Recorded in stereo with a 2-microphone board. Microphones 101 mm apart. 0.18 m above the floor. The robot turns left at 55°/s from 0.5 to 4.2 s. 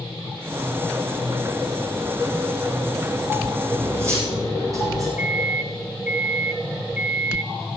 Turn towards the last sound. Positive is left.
turn(degrees=-15)  # may be behind; listen again after turning